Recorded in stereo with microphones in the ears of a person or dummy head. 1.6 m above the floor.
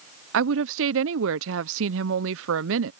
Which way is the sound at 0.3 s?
85° right.